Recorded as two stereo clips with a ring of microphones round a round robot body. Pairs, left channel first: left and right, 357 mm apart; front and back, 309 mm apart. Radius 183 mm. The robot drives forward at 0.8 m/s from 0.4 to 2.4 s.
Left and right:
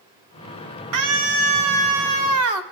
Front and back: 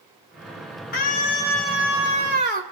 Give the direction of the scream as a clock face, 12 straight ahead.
2 o'clock.